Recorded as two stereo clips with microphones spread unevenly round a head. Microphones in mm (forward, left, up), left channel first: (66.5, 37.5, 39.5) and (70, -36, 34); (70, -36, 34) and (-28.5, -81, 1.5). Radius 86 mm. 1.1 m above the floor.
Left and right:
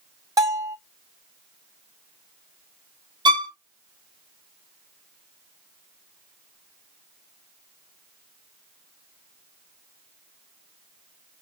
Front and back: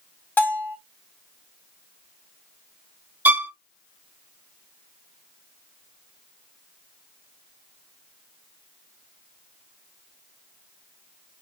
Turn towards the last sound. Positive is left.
turn(degrees=-85)